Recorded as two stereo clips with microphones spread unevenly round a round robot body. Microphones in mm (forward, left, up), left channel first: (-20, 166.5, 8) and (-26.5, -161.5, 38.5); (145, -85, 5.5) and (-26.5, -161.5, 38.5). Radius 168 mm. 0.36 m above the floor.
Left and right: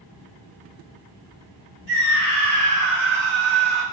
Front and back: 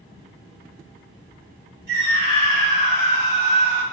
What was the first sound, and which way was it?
A scream, 130° right.